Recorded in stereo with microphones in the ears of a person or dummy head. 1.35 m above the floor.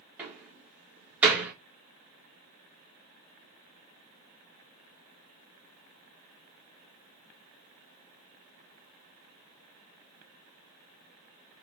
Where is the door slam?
10° right (ahead or behind), 0.9 m.